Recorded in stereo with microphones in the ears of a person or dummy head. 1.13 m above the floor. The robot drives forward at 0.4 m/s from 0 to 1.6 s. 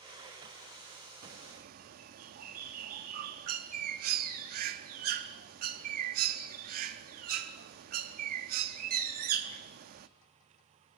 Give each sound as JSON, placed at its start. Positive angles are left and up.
{"t": 1.2, "sound": "a bird", "side_deg": -55, "distance_m": 0.9}